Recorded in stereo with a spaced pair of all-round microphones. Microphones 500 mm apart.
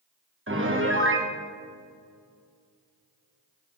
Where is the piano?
25° right (ahead or behind), 1.4 m.